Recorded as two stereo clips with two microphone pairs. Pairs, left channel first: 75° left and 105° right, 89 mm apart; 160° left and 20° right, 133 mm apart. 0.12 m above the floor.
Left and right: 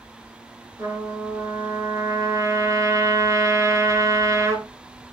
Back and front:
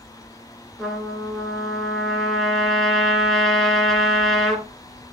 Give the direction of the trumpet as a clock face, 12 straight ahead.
4 o'clock.